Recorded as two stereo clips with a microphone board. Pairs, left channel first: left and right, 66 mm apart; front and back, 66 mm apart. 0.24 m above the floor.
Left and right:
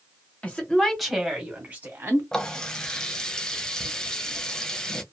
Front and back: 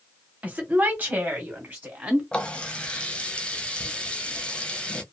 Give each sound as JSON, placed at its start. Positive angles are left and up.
{"t": 0.4, "sound": "a woman speaking", "azimuth_deg": 135, "distance_m": 1.2}
{"t": 2.3, "sound": "a running tap", "azimuth_deg": 30, "distance_m": 0.7}